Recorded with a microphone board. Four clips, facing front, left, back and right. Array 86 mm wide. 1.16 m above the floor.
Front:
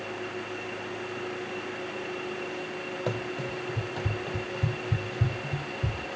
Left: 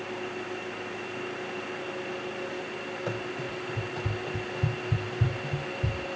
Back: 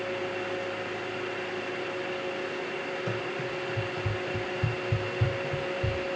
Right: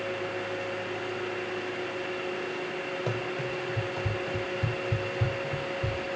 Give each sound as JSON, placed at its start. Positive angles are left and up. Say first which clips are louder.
{"t": 3.1, "sound": "running footsteps", "louder": "right 1 dB, even", "azimuth_deg": -20, "distance_m": 2.0}